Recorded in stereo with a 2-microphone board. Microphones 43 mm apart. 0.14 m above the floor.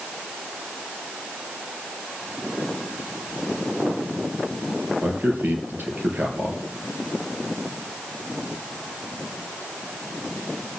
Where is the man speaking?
50° right (ahead or behind), 3 m.